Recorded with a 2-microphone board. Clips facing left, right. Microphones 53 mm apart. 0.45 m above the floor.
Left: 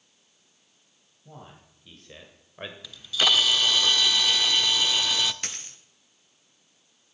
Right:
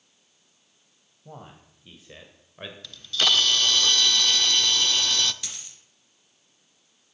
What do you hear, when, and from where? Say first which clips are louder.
1.2 s a man speaking: right 3 dB; 25° right (ahead or behind), 2.5 m; by 2.7 s 15° left (ahead or behind), 1.7 m
2.8 s a camera shutter: even; 10° left (ahead or behind), 0.6 m
5.4 s a dropped coin: left 4 dB; 45° left (ahead or behind), 1.4 m